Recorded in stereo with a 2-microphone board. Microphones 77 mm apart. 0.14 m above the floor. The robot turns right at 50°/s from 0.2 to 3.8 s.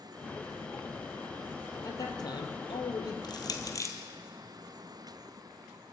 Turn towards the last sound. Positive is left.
turn(degrees=45)  # may be behind; listen again after turning